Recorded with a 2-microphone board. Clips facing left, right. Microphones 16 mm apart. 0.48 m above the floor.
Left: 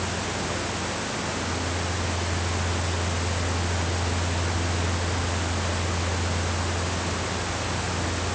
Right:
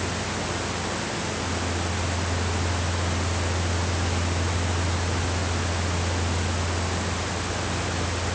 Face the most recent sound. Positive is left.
No sound to turn to.